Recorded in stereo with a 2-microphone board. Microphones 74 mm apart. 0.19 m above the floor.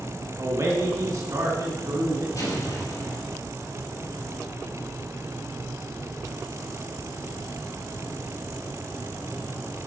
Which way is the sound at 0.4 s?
50° right (ahead or behind).